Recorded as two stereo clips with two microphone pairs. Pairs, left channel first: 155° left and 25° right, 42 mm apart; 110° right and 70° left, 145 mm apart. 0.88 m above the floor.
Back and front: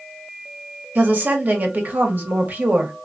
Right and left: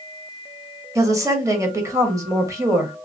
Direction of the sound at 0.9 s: 5° left.